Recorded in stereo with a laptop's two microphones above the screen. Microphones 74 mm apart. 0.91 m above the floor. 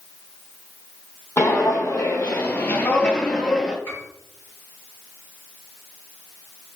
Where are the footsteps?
40° left (ahead or behind), 1.6 m; by 3.8 s 5° right (ahead or behind), 0.9 m.